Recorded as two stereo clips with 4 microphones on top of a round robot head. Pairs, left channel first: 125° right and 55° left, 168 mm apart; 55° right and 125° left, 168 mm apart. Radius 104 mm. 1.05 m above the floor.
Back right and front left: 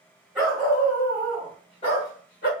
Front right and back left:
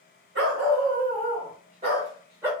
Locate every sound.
0.3 s a dog barking: 140° left, 1.6 m; by 2.5 s 160° right, 1.2 m